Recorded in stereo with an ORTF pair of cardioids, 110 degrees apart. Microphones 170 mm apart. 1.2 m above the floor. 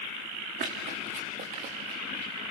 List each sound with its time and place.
0.6 s running footsteps: 70° right, 5.5 m; by 2.3 s 80° right, 7.5 m